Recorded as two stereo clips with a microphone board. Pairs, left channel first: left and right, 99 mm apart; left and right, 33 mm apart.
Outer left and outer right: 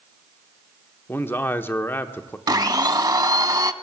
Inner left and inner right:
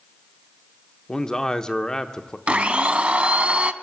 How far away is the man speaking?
About 0.7 m.